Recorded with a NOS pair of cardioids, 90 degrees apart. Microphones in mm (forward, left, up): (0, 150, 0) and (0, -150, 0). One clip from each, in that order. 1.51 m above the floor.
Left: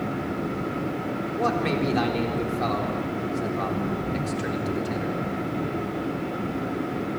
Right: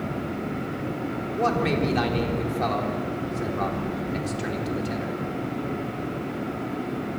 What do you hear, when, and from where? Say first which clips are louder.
0.0 s a fan: left 2 dB; 35° left, 8.5 m
1.3 s a man speaking: right 1 dB; 10° right, 4 m